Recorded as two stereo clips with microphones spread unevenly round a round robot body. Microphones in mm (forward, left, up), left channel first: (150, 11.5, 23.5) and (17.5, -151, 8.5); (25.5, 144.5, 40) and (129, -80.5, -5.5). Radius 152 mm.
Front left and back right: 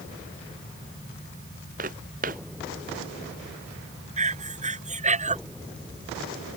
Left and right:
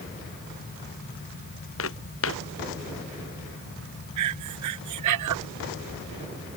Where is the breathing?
75° right.